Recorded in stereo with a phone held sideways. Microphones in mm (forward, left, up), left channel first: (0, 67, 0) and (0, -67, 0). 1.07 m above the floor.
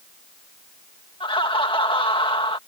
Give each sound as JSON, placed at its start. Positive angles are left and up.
{"t": 1.2, "sound": "laughter", "side_deg": 40}